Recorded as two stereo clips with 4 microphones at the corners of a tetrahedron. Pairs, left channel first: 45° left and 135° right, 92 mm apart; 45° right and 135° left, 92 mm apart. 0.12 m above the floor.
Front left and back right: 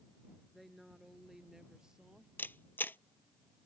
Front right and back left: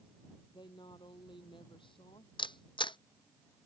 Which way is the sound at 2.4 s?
20° right.